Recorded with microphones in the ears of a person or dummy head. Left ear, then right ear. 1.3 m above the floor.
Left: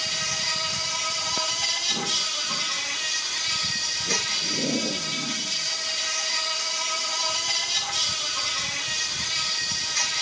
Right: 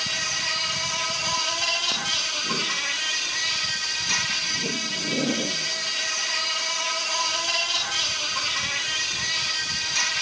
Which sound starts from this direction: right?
An insect, at 0.0 s.